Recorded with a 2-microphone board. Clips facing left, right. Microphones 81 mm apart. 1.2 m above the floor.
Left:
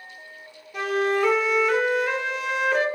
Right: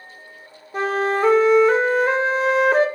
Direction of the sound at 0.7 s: 35° right (ahead or behind).